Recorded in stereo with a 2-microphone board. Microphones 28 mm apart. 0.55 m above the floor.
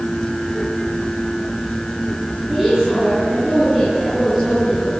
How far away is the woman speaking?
About 8.5 m.